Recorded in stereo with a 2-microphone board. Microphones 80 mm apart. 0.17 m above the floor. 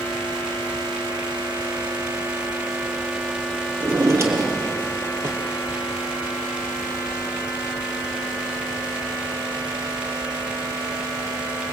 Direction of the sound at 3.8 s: 35° right (ahead or behind).